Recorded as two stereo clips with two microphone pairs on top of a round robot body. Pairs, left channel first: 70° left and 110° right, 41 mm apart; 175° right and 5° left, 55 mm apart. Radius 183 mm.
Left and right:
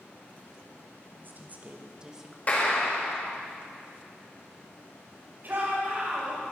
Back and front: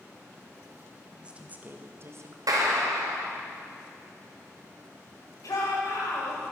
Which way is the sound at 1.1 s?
70° right.